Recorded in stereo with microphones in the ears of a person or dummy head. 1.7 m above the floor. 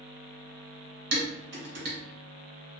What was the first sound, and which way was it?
Dishes clattering, 60° right (ahead or behind).